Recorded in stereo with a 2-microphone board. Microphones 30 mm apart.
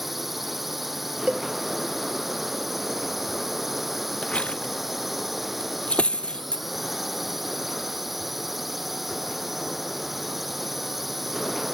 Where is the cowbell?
55° right (ahead or behind).